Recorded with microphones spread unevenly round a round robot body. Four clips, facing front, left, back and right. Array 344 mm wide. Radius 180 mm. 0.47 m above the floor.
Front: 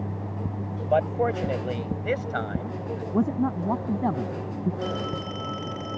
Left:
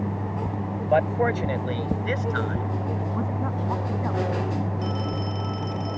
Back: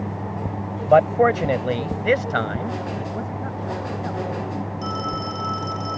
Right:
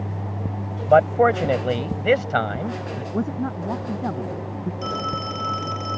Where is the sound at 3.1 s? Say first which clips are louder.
Right 3 dB, front 5 dB; 15° right.